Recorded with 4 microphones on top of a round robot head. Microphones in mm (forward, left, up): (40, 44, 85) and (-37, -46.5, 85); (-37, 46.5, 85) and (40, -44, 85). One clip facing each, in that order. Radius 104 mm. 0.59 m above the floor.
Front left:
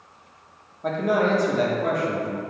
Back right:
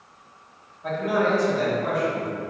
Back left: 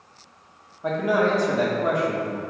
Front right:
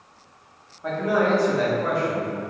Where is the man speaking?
65° left, 1.2 m.